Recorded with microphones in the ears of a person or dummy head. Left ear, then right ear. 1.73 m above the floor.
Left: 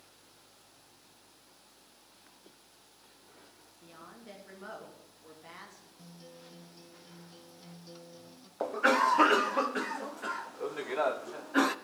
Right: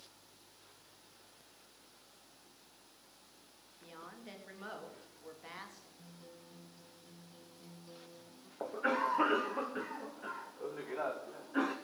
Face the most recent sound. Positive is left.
turn(degrees=80)